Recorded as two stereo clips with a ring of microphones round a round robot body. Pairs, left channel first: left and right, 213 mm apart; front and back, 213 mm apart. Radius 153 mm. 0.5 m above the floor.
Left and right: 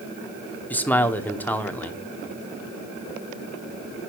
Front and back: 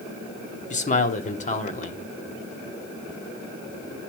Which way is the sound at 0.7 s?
15° left.